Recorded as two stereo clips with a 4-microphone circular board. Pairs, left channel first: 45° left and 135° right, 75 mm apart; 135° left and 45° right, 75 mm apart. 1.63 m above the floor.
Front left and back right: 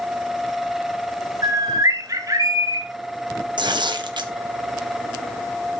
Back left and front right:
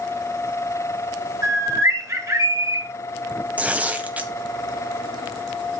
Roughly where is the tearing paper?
Behind right.